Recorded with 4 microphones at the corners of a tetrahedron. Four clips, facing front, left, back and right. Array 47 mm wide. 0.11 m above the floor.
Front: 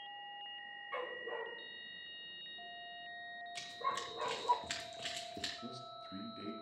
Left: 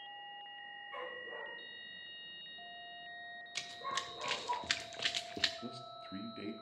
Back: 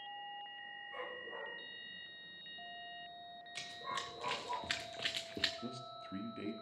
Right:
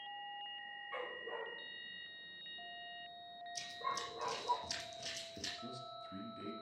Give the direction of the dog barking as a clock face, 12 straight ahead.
1 o'clock.